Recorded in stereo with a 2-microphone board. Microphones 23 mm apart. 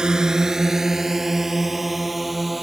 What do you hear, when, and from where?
0.0 s a drone: 30° right (ahead or behind); by 2.6 s centre (ahead or behind)